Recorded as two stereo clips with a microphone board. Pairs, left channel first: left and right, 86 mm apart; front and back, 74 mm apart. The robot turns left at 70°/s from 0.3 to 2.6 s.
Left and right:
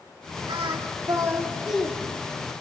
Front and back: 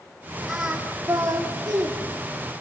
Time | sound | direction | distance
0.5 | singing | 90° right | 4 m